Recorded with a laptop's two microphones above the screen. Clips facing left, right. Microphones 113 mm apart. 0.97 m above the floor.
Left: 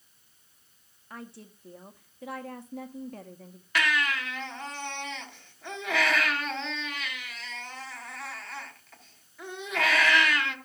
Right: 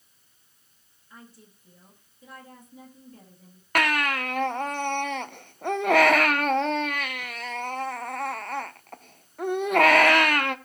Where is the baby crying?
55° right (ahead or behind), 0.8 m.